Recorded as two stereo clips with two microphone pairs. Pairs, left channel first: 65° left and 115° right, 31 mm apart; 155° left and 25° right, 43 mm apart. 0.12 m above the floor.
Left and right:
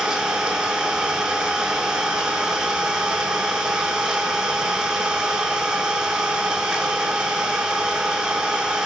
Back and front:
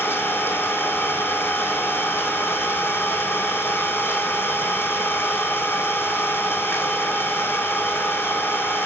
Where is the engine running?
Straight behind, 1.6 m.